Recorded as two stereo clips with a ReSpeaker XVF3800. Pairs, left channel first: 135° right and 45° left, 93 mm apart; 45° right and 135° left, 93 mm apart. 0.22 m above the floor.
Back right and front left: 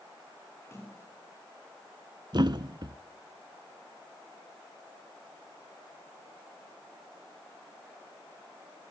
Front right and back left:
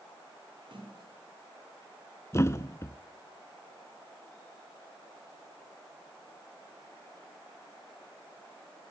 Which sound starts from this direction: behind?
A splash, at 0.6 s.